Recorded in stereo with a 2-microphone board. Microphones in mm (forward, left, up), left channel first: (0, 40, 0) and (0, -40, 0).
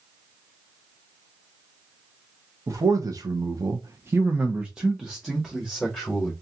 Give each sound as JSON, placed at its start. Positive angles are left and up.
{"t": 2.7, "sound": "a man speaking", "side_deg": -45, "distance_m": 0.8}